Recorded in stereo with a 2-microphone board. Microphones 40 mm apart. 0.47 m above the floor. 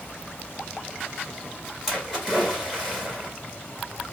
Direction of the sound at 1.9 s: 5° right (ahead or behind).